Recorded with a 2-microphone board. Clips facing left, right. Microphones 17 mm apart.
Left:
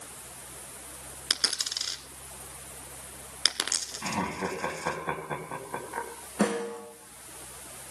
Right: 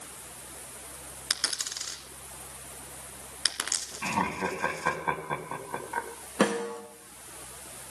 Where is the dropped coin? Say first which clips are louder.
Left 3 dB; 35° left (ahead or behind), 1.8 m.